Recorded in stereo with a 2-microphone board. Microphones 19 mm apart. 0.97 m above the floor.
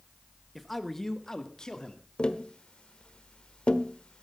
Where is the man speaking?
5° right (ahead or behind), 1.3 m; by 2.0 s 45° left (ahead or behind), 2.5 m.